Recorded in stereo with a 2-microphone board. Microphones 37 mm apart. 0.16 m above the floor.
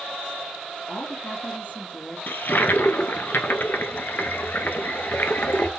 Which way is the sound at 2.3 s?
60° left (ahead or behind).